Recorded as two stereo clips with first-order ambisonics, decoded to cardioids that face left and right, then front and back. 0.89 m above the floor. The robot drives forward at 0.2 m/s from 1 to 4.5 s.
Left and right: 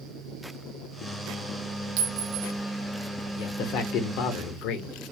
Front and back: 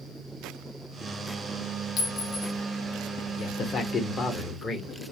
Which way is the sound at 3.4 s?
55° left.